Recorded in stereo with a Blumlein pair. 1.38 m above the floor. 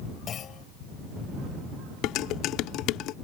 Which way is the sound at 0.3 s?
25° left.